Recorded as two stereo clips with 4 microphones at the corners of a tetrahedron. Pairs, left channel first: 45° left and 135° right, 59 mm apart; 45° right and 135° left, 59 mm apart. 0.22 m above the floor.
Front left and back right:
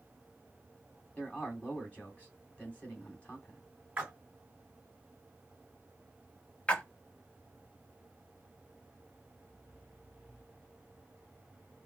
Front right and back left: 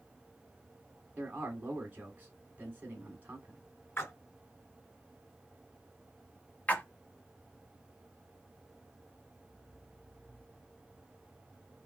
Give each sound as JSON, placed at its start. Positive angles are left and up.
{"t": 1.2, "sound": "a man speaking", "azimuth_deg": 95, "distance_m": 2.0}
{"t": 4.0, "sound": "a splash", "azimuth_deg": -70, "distance_m": 1.9}
{"t": 6.7, "sound": "a splash", "azimuth_deg": -10, "distance_m": 0.9}